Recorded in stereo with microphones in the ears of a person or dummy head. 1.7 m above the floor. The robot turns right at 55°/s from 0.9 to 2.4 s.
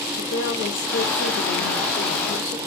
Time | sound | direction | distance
0.2 | a woman speaking | 70° left | 1.3 m